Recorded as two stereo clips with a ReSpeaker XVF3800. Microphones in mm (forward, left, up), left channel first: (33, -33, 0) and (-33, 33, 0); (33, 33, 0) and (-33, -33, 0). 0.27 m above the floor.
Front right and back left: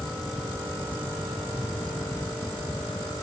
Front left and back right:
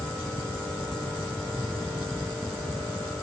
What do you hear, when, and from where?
Only background noise.